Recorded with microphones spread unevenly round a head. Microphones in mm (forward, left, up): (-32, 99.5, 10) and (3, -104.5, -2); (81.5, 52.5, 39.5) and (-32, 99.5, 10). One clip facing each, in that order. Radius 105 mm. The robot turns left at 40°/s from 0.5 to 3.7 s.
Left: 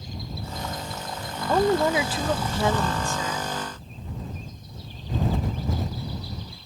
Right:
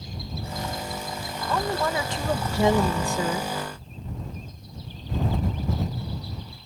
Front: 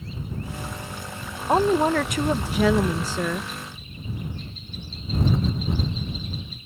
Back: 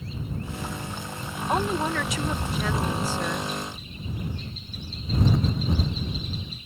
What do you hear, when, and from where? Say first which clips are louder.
1.5 s a woman speaking: left 6 dB, front 7 dB; 40° left; by 3.5 s 40° right